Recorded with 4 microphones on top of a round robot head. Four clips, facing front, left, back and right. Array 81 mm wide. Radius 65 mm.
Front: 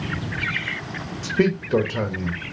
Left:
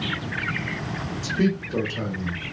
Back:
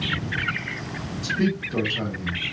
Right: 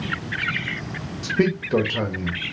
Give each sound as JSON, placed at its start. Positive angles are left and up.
{"t": 1.2, "sound": "a man speaking", "azimuth_deg": -45, "distance_m": 1.1}